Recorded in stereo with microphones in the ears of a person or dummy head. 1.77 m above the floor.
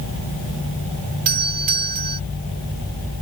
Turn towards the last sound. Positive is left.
turn(degrees=-50)  # may be behind; listen again after turning